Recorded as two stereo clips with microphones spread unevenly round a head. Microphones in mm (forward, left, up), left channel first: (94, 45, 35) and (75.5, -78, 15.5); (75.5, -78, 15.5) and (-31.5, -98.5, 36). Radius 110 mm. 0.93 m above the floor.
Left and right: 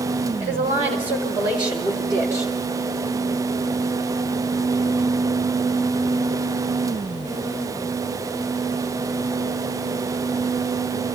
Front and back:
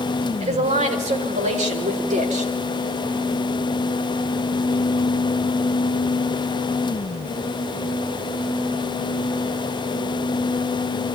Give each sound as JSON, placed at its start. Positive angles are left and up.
{"t": 0.4, "sound": "a woman speaking", "azimuth_deg": -150, "distance_m": 4.5}